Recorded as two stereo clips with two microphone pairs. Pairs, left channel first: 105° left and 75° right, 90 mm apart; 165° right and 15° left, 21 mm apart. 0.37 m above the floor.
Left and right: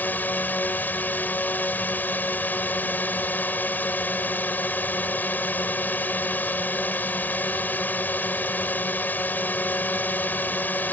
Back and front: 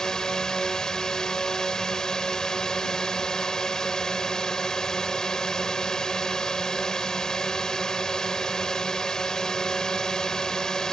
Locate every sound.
0.0 s a drone: 160° left